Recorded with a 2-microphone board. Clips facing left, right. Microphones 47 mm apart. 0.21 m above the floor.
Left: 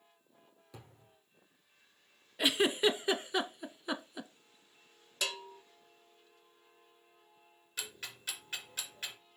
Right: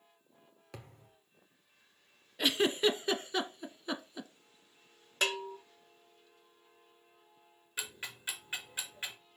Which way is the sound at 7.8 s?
20° right (ahead or behind).